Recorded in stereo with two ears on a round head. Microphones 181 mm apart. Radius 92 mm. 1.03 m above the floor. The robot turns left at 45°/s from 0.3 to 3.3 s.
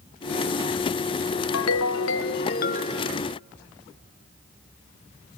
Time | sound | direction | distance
1.5 | a ringtone | 95° left | 0.8 m